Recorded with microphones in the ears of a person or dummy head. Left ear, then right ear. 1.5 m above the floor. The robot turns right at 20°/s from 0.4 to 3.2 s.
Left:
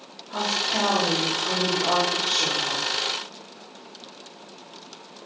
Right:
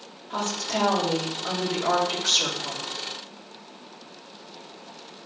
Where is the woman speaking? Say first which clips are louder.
Left 4 dB; 100° right, 2 m; by 2.8 s 50° right, 2 m.